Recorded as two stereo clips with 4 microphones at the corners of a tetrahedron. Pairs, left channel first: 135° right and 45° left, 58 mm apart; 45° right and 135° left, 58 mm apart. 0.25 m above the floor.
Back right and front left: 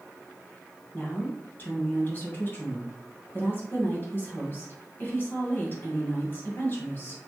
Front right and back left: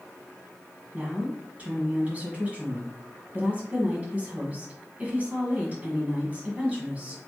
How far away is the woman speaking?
About 1.8 m.